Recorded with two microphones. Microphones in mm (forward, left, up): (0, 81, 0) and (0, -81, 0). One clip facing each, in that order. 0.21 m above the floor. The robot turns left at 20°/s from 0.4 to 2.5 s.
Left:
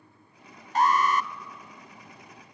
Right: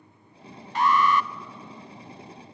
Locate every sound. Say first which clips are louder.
0.8 s an alarm: right 1 dB; 45° left (ahead or behind), 0.9 m